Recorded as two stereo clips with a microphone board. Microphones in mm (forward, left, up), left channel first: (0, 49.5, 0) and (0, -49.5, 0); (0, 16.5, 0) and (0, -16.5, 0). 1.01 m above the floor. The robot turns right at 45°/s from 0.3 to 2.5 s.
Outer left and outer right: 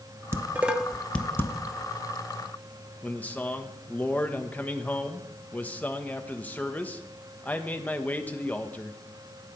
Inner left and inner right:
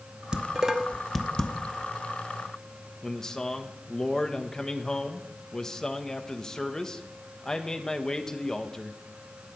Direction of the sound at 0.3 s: 25° right (ahead or behind).